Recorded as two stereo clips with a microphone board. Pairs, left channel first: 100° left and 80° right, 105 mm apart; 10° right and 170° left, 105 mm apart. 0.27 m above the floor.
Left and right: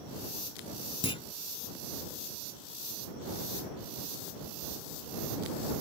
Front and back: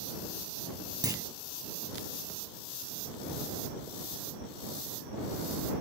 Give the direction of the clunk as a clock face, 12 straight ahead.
8 o'clock.